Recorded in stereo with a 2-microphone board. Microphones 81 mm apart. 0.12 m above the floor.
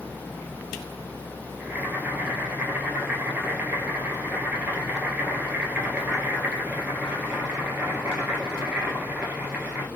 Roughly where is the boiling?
Centre.